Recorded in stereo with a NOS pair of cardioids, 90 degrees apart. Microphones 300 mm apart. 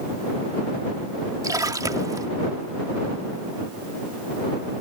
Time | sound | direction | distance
1.4 | a splash | 10° right | ?